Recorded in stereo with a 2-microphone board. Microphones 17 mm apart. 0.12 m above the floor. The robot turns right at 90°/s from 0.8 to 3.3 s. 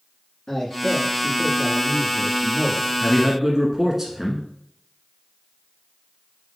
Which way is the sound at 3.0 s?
10° right (ahead or behind).